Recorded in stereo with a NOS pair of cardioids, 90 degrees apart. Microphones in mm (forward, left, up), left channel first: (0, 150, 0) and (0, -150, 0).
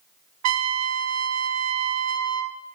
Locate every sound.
0.4 s a trumpet: 60° right, 0.6 m